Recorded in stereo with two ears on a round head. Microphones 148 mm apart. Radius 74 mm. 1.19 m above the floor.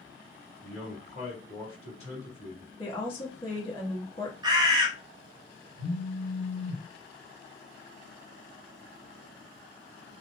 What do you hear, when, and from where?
0.6 s a man speaking: 40° left (ahead or behind), 1.6 m
2.8 s a woman speaking: 30° left (ahead or behind), 1.1 m
4.4 s a bird: 25° right (ahead or behind), 0.7 m
5.8 s a phone buzzing: 40° left (ahead or behind), 1.7 m